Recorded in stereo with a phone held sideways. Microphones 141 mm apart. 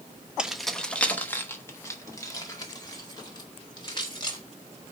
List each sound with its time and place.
0.4 s keys jangling: 5° right (ahead or behind), 0.9 m; by 4.4 s 35° left (ahead or behind), 3 m